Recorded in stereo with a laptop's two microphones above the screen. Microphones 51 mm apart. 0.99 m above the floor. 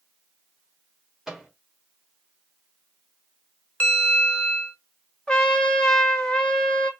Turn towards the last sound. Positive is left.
turn(degrees=15)  # may be behind; listen again after turning